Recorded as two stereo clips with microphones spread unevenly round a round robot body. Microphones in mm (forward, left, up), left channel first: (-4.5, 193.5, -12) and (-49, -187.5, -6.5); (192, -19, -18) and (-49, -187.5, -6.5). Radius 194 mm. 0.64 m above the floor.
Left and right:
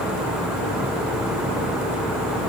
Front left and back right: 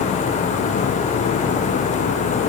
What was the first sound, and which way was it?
Only background noise.